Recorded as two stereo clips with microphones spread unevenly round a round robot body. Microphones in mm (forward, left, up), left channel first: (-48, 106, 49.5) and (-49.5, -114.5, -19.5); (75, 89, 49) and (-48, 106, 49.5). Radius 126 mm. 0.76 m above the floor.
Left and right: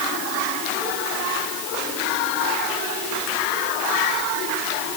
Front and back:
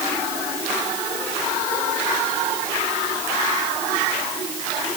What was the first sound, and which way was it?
Only background noise.